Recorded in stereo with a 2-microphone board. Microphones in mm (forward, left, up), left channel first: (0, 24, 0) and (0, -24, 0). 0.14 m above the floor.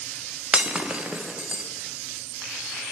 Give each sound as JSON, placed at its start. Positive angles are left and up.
{"t": 0.5, "sound": "breaking glass", "side_deg": -25, "distance_m": 1.3}